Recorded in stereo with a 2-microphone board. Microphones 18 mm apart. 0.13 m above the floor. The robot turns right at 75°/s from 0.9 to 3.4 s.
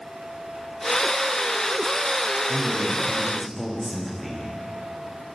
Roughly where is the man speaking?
Behind left.